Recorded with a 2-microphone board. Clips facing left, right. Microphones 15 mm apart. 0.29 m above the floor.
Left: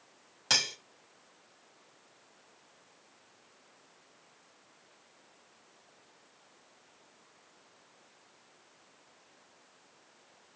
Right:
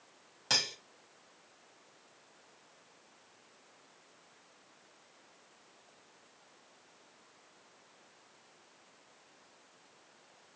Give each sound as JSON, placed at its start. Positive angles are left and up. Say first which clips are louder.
{"t": 0.5, "sound": "cutlery clinking", "louder": "left 3 dB", "side_deg": 25, "distance_m": 1.2}